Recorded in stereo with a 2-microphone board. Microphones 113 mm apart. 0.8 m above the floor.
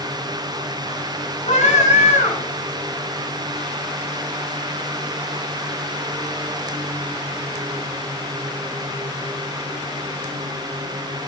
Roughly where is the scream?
Left.